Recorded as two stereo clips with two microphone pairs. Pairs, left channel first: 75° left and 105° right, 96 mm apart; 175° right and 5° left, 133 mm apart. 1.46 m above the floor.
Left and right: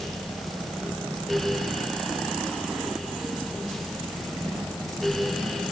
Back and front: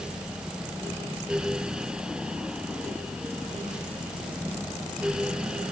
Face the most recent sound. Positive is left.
No sound to turn to.